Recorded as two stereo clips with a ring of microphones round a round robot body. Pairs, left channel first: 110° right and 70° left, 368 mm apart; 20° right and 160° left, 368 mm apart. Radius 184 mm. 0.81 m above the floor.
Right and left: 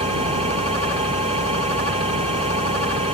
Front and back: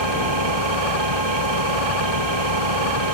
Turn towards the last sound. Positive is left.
turn(degrees=145)